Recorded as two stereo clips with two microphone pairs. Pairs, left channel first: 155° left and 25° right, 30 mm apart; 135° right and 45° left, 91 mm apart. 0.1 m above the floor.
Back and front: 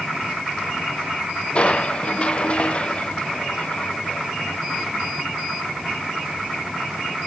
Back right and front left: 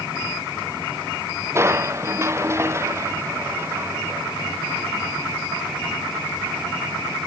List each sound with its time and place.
1.6 s crushing: 105° left